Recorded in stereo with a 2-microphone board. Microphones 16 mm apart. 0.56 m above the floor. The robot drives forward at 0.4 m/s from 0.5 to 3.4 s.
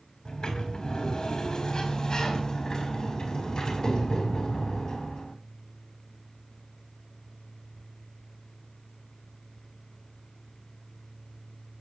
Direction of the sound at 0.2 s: 60° left (ahead or behind).